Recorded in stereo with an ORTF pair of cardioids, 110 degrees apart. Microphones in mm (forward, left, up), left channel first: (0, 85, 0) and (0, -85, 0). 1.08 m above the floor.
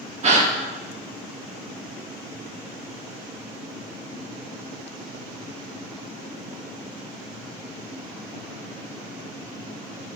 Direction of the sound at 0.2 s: 45° right.